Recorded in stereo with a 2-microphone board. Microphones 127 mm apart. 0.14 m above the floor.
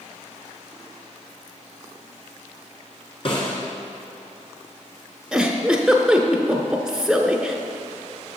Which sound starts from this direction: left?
A snare drum, at 3.2 s.